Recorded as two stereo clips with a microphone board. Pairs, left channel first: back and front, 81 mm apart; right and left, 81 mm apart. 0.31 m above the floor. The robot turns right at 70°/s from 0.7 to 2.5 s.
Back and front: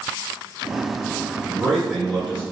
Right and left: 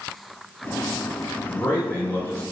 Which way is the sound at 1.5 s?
125° right.